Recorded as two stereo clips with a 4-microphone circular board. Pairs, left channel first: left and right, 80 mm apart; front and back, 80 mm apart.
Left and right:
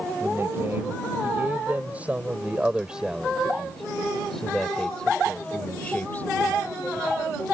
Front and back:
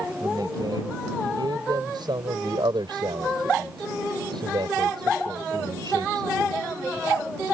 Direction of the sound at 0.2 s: 150° right.